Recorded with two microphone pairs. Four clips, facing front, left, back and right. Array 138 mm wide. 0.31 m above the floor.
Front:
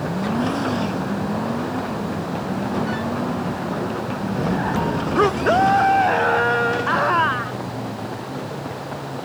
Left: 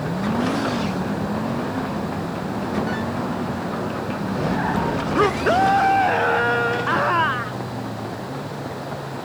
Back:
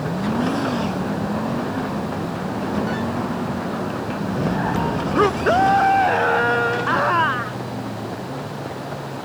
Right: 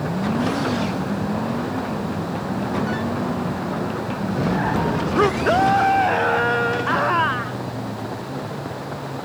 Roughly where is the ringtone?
No ringtone in this recording.